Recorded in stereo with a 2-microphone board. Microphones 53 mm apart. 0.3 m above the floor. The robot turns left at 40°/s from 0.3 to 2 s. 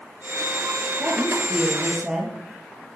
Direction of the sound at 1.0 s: 130° right.